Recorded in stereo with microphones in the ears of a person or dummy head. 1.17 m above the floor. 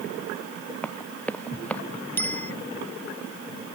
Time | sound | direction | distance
0.8 | running footsteps | 5° left (ahead or behind) | ?
2.2 | a bicycle bell | 10° left (ahead or behind) | ?